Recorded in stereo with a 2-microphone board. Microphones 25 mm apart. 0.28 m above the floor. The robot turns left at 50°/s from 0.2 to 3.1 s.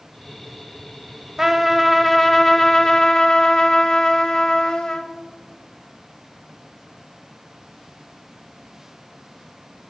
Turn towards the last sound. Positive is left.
turn(degrees=125)